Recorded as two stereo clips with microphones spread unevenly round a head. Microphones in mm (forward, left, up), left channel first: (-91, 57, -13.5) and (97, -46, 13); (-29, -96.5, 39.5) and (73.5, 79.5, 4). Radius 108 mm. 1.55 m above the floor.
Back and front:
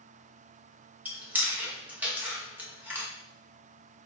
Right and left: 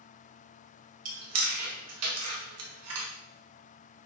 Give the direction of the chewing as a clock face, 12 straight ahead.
10 o'clock.